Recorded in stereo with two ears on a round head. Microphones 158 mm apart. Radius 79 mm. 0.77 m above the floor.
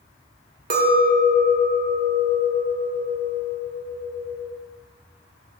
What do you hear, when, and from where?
0.7 s a clink: 50° right (ahead or behind), 1.4 m